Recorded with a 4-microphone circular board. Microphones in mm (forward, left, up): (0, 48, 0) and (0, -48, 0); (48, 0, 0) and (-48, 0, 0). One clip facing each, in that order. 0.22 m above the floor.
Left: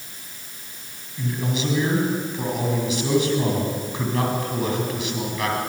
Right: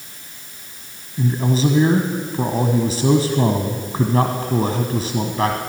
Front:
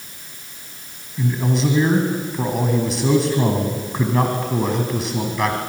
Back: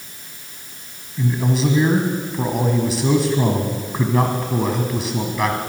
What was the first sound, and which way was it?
A man speaking, 90° right.